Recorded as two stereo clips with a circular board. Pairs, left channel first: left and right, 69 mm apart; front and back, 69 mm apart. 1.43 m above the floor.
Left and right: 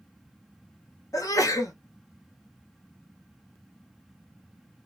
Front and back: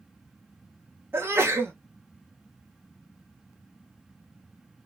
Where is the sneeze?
125° left, 1.1 m.